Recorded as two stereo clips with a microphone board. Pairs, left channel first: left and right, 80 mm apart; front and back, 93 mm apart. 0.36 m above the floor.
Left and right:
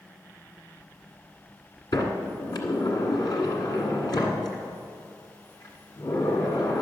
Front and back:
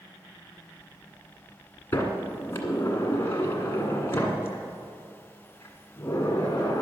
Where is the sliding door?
60° left, 1.7 m.